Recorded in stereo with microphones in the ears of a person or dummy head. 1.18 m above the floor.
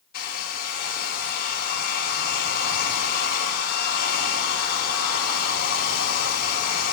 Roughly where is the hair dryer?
Left.